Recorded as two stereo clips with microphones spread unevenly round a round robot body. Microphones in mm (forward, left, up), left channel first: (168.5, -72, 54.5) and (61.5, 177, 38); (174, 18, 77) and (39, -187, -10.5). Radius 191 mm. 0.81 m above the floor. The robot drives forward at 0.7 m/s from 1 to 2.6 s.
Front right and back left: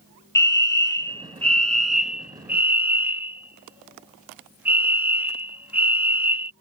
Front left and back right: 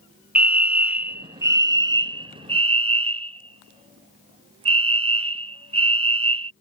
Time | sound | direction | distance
0.3 | a fire alarm | 140° right | ?